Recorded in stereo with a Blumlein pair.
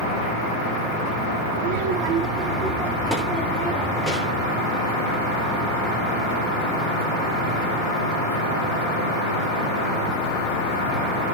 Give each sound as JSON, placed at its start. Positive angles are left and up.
{"t": 1.6, "sound": "a child speaking", "azimuth_deg": -65, "distance_m": 1.5}